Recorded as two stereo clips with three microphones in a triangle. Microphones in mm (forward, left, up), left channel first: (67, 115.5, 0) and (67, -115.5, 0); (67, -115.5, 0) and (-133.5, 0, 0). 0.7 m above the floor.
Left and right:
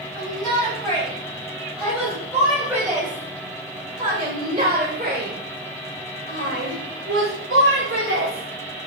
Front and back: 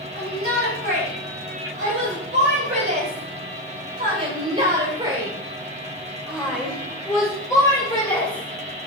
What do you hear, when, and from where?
0.1 s a shout: 170° left, 4.5 m; by 8.9 s 90° right, 3 m